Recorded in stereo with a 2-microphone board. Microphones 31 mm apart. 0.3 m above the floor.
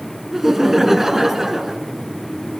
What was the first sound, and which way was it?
Laughter, 10° right (ahead or behind).